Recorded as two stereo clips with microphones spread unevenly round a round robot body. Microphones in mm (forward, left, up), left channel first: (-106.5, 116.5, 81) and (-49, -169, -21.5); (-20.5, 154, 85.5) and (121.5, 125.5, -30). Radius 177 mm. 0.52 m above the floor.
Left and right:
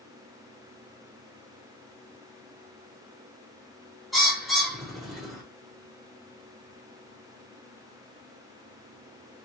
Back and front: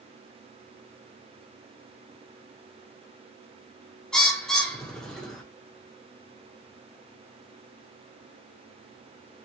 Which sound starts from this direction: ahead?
A bird, at 4.1 s.